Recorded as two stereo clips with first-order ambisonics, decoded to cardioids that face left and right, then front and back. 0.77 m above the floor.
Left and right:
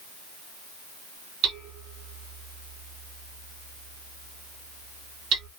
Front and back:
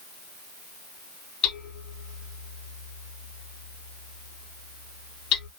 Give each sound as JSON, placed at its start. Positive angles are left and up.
{"t": 1.4, "sound": "hammering", "azimuth_deg": -45, "distance_m": 3.0}